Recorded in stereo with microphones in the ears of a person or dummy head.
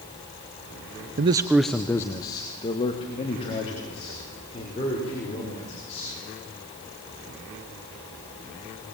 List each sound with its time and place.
1.2 s a man speaking: 35° right (ahead or behind), 0.7 m; by 6.1 s 30° left (ahead or behind), 6.5 m